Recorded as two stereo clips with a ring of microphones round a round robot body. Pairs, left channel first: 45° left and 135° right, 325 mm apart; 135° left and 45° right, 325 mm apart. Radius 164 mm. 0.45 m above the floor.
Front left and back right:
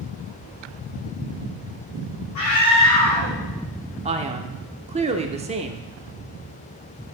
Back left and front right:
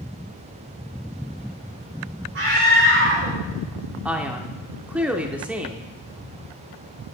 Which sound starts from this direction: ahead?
A scream, at 2.4 s.